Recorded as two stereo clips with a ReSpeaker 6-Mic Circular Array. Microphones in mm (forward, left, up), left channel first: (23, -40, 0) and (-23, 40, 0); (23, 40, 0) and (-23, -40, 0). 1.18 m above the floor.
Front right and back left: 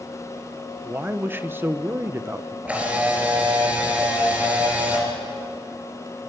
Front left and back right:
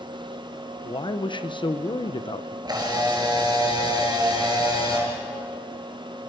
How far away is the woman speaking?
About 0.9 m.